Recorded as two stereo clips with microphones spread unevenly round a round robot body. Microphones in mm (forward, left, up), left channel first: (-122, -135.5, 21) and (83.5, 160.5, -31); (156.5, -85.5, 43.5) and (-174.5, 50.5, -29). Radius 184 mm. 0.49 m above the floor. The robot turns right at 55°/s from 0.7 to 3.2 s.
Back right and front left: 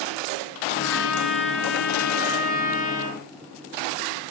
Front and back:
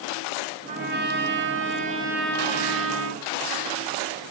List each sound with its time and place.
0.7 s a trumpet: 165° left, 3 m; by 3.2 s 60° right, 3 m